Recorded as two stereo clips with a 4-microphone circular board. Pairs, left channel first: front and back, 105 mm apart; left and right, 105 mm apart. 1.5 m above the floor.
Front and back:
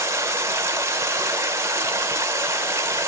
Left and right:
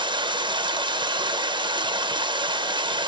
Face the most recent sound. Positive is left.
turn(degrees=-120)